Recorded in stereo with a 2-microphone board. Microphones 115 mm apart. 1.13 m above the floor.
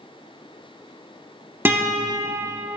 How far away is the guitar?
About 0.8 m.